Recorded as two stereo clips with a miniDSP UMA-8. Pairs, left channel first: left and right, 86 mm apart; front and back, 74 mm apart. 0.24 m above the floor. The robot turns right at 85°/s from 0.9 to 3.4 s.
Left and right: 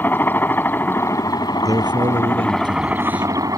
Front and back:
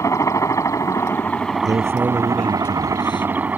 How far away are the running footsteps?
I don't hear running footsteps.